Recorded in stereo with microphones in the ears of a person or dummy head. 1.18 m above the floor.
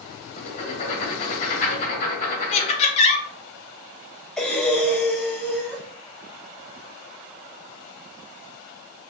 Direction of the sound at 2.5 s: 30° left (ahead or behind).